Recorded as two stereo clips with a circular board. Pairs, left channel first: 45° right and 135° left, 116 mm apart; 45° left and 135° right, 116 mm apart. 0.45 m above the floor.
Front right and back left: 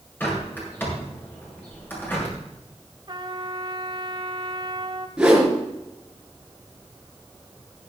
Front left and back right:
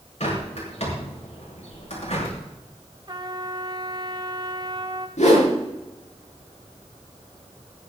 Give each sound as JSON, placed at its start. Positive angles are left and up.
{"t": 0.2, "sound": "a bird", "azimuth_deg": 25, "distance_m": 6.5}
{"t": 3.1, "sound": "a trumpet", "azimuth_deg": 180, "distance_m": 1.3}
{"t": 5.2, "sound": "a whoosh", "azimuth_deg": 50, "distance_m": 4.5}